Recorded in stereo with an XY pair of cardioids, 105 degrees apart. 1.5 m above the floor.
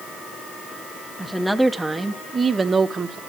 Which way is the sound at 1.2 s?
5° left.